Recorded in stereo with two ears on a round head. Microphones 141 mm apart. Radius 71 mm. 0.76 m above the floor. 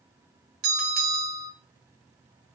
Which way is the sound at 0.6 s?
60° right (ahead or behind).